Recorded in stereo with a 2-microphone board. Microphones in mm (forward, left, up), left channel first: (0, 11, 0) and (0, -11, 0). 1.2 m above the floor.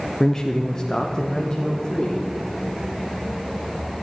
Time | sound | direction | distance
0.2 | a man speaking | 20° left (ahead or behind) | 0.5 m